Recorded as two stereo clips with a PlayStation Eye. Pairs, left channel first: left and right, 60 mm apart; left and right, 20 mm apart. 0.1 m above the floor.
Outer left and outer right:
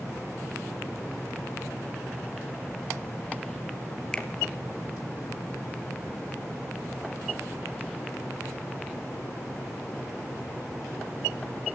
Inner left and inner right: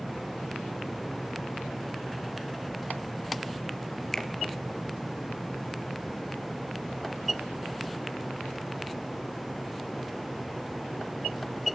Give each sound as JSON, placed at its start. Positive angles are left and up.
{"t": 4.1, "sound": "a finger snap", "side_deg": 10, "distance_m": 2.0}